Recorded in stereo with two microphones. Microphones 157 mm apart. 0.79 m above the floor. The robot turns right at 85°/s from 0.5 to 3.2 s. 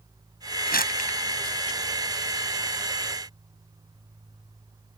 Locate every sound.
0.7 s crumpling: 80° left; by 1.2 s 40° left (ahead or behind)